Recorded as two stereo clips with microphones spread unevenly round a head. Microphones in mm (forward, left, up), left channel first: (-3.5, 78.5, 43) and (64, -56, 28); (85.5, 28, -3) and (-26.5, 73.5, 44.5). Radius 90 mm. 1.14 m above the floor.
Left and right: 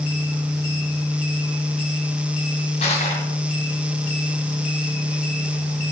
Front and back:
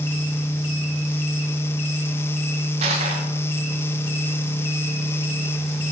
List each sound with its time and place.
2.8 s crushing: 170° left, 2 m